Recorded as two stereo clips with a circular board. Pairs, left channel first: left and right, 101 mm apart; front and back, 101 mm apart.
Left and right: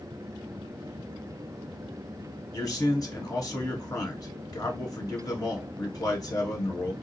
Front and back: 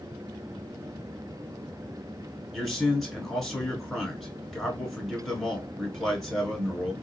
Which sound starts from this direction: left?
A man speaking, at 2.5 s.